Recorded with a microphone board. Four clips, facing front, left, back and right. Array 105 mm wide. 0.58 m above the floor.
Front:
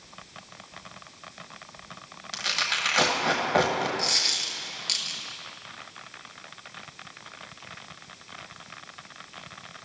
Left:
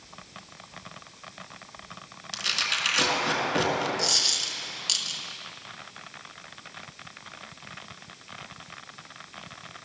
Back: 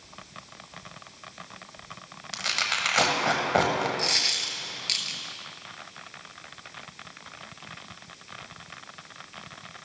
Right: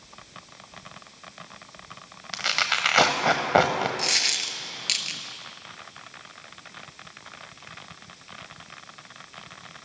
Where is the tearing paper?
95° right, 1.0 m.